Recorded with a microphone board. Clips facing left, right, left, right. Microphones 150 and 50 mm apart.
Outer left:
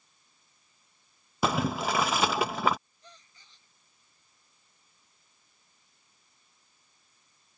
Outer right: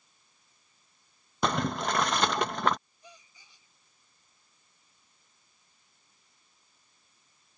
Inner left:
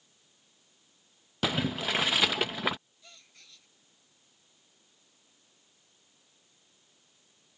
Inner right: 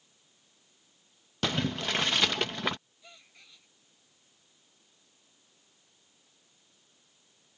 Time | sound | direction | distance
1.4 | boiling | 5° left (ahead or behind) | ?
3.0 | a gasp | 10° right (ahead or behind) | ?